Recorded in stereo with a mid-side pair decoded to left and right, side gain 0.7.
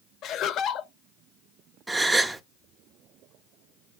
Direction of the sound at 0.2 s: 50° left.